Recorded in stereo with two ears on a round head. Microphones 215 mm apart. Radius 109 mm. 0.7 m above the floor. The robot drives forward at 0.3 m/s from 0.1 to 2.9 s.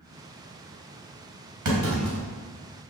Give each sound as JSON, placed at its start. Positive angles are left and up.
{"t": 1.6, "sound": "a clunk", "side_deg": -80, "distance_m": 3.0}